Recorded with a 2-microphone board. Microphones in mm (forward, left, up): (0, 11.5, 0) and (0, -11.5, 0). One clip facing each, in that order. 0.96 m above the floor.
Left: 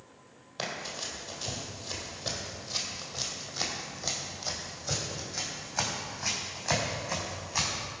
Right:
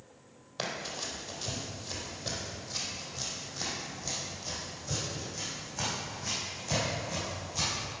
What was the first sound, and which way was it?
Running footsteps, centre (ahead or behind).